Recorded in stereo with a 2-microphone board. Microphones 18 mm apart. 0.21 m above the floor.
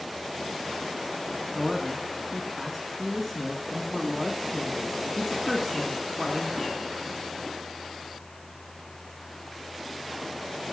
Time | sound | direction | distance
1.6 | a man speaking | centre (ahead or behind) | 2.5 m